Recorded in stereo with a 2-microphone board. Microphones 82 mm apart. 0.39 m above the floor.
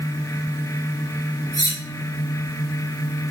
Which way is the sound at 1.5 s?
65° left (ahead or behind).